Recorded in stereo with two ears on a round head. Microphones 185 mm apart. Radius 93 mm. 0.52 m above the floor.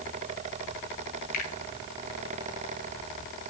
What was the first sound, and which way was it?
A finger snap, 40° left (ahead or behind).